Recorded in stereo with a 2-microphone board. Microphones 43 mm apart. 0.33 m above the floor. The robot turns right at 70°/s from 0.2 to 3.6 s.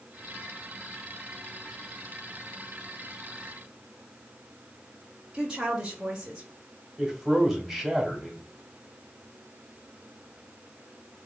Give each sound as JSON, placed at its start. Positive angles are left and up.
{"t": 5.3, "sound": "a woman speaking", "side_deg": -20, "distance_m": 1.1}
{"t": 7.0, "sound": "a man speaking", "side_deg": -5, "distance_m": 2.0}